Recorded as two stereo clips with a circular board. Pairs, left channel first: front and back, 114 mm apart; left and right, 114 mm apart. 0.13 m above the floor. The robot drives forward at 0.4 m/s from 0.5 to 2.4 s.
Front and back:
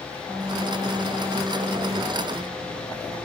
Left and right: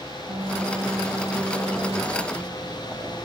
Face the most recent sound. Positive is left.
turn(degrees=-125)